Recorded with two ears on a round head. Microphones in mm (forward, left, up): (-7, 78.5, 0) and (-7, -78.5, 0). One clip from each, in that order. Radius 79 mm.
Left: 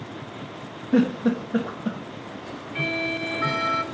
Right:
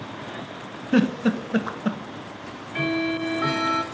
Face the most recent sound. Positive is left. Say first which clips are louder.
# right 1 dB
turn(degrees=-10)  # may be behind; listen again after turning